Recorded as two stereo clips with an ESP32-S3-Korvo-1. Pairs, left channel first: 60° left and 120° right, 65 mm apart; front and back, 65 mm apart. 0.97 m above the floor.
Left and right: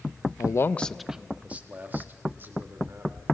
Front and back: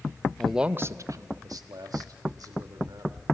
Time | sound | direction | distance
0.4 | a man speaking | 80° left | 0.5 m